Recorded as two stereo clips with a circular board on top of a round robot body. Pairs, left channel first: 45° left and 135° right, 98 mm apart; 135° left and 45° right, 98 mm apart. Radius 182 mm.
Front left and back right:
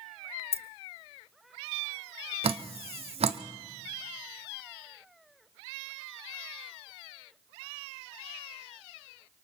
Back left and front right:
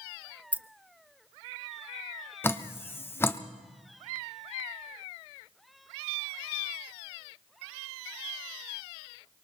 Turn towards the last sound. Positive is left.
turn(degrees=-155)